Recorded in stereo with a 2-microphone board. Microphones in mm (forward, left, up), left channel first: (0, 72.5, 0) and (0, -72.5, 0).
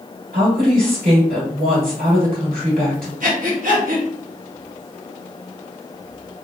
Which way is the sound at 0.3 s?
80° right.